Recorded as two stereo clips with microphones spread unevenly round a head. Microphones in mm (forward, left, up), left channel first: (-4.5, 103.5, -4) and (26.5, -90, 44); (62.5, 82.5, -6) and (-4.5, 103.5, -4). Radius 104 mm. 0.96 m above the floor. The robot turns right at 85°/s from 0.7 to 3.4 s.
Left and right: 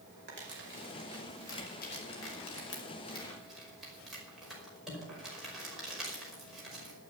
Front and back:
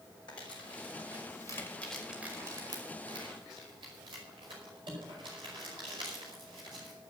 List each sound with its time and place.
0.3 s crumpling: 40° right, 5 m; by 7.0 s 170° right, 5 m